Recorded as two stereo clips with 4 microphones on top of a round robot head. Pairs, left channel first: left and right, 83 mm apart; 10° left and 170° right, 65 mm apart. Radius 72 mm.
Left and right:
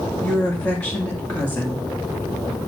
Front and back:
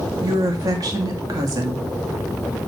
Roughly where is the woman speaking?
Behind.